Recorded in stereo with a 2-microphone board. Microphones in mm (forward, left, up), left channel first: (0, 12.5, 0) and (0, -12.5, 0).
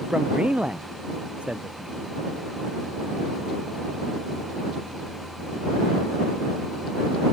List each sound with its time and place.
0.1 s a man speaking: 45° right (ahead or behind); by 2.0 s 55° right (ahead or behind)